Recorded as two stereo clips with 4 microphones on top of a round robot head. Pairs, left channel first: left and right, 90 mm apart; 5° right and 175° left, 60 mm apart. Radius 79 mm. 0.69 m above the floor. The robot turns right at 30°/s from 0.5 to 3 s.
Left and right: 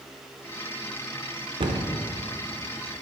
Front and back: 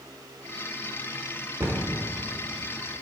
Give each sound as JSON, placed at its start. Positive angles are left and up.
{"t": 1.6, "sound": "a cupboard door", "azimuth_deg": -125, "distance_m": 0.8}